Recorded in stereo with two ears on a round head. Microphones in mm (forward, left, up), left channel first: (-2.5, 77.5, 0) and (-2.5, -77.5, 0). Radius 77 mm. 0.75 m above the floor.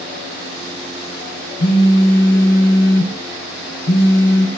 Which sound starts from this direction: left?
A phone buzzing, at 1.6 s.